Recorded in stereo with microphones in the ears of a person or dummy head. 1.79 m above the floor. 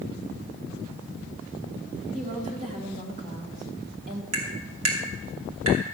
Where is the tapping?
90° right, 3 m.